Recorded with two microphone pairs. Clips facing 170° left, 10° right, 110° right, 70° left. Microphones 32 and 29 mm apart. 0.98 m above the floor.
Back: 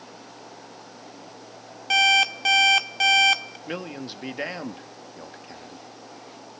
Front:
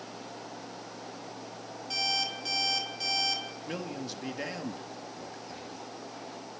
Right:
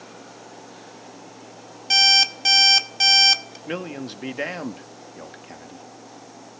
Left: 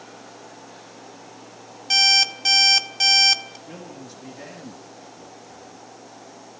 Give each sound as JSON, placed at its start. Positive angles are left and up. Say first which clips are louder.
{"t": 1.9, "sound": "an alarm clock", "louder": "back 14 dB, right 1 dB", "azimuth_deg": 170, "distance_m": 1.5}
{"t": 3.7, "sound": "a man speaking", "louder": "back 6 dB, right 8 dB", "azimuth_deg": -130, "distance_m": 2.0}